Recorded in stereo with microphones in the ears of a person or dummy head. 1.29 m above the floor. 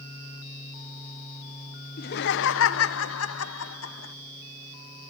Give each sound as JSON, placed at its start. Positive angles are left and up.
{"t": 2.0, "sound": "laughter", "side_deg": 50, "distance_m": 0.8}